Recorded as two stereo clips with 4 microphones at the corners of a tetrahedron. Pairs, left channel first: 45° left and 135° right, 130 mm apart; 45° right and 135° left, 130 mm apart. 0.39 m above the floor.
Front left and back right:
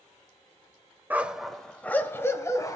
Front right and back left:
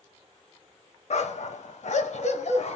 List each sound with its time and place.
1.1 s a dog barking: 60° right, 0.7 m; by 2.8 s 15° right, 1.3 m